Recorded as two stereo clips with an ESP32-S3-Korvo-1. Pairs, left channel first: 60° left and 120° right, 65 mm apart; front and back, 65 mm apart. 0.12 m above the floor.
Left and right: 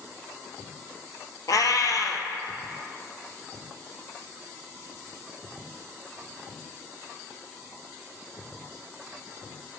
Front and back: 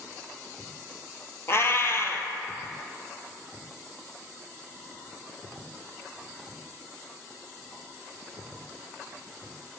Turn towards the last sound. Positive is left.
turn(degrees=45)